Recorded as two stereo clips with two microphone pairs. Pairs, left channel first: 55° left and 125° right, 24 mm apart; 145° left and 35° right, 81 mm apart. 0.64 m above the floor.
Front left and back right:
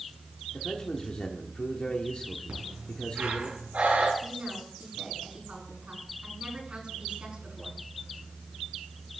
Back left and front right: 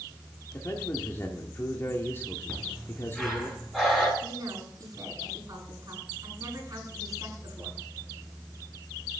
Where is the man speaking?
95° left, 1.5 m.